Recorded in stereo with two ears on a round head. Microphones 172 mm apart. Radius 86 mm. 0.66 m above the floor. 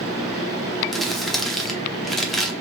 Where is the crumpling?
Centre (ahead or behind), 0.7 m.